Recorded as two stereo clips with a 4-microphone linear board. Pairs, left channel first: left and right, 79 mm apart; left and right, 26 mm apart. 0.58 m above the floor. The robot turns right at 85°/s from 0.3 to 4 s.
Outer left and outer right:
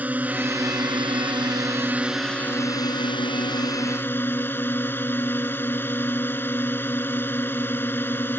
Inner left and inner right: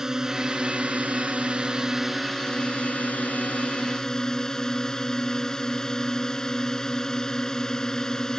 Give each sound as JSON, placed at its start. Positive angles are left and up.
{"t": 0.0, "sound": "a drone", "azimuth_deg": -160}